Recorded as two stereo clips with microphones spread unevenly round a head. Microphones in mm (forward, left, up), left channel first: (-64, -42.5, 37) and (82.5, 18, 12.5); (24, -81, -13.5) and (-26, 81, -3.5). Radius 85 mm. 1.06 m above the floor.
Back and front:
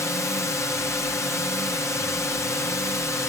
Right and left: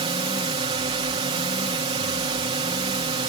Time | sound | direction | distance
0.0 | a drone | 130° left | ?